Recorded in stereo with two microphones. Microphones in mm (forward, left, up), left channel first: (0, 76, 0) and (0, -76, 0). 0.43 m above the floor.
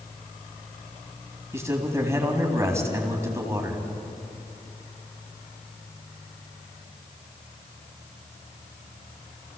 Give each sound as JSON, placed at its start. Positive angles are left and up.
{"t": 1.5, "sound": "a man speaking", "side_deg": -20, "distance_m": 3.5}